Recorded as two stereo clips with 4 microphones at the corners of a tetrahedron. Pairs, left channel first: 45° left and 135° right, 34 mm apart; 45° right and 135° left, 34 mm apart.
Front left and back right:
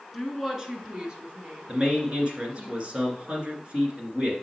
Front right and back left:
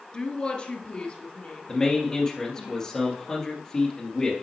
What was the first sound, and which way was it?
A woman speaking, 55° right.